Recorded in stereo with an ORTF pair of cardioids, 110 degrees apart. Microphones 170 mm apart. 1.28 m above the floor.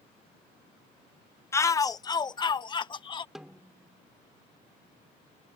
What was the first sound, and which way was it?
A shout, 15° left.